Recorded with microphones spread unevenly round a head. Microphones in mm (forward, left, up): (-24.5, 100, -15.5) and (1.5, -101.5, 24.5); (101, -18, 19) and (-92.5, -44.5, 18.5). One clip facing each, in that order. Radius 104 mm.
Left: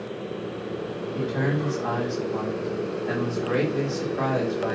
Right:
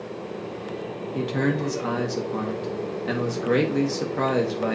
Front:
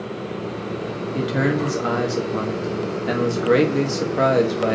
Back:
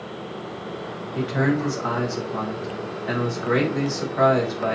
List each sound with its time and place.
1.1 s a man speaking: 40° right, 2.5 m